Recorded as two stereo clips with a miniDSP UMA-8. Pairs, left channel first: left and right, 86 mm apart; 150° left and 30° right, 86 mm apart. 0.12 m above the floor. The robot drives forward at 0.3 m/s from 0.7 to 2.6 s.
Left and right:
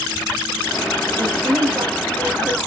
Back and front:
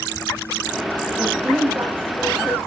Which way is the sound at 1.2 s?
95° right.